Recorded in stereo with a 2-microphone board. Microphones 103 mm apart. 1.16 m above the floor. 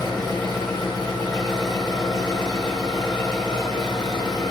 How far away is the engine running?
About 1.3 m.